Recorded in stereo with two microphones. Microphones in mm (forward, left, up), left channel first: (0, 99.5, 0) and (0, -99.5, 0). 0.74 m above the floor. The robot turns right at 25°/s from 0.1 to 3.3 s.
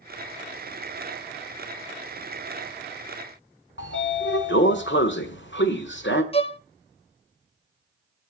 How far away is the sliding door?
About 1.3 m.